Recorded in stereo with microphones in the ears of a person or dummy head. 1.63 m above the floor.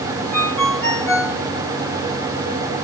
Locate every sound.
0.3 s a ringtone: 5° left (ahead or behind), 3 m